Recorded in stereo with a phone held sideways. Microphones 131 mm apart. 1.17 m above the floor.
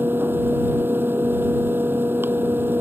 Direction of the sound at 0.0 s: 15° right (ahead or behind).